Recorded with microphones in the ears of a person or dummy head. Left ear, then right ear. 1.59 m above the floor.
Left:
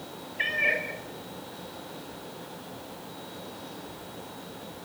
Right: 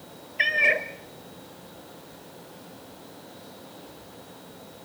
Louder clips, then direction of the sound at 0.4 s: Right 5 dB; 35° right (ahead or behind).